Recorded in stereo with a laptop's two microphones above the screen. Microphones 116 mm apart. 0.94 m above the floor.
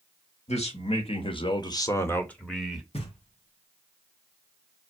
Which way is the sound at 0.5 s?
70° left (ahead or behind).